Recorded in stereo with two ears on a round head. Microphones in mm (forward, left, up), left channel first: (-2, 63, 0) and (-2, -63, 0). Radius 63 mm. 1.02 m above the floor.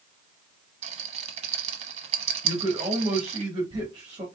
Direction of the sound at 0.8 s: 50° right (ahead or behind).